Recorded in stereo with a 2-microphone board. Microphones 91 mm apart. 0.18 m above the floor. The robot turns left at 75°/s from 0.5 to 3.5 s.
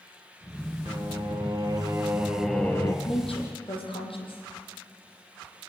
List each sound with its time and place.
0.8 s singing: 60° right, 2 m; by 3.0 s 140° left, 2 m
3.0 s a woman speaking: 100° left, 7 m; by 4.4 s 70° left, 7 m